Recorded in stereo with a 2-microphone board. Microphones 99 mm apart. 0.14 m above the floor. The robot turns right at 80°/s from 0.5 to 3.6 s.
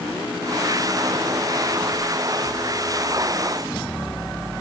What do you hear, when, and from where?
Only background noise.